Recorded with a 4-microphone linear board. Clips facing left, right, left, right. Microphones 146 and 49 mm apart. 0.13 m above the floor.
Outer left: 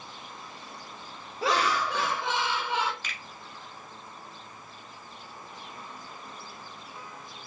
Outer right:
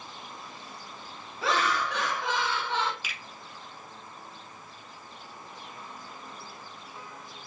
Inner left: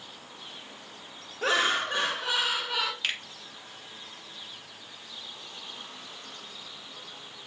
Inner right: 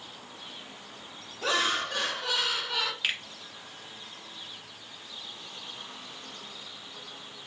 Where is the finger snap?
10° right (ahead or behind), 1.4 m.